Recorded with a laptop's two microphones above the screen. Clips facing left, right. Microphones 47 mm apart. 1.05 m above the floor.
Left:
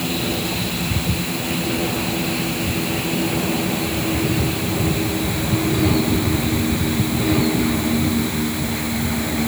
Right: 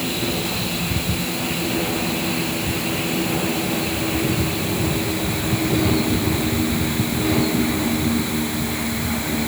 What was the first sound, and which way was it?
Only background noise.